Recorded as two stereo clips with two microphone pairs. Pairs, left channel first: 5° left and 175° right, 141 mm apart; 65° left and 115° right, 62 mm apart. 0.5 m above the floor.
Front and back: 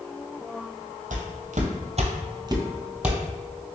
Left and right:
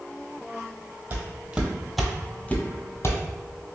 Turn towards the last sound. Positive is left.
turn(degrees=100)